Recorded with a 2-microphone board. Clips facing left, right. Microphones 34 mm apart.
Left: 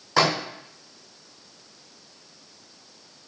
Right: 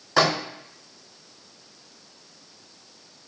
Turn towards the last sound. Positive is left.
turn(degrees=0)  # may be behind; listen again after turning